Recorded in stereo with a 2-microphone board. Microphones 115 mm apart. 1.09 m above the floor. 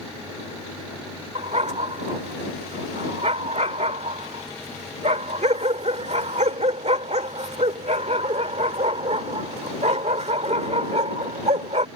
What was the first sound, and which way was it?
A dog barking, 70° right (ahead or behind).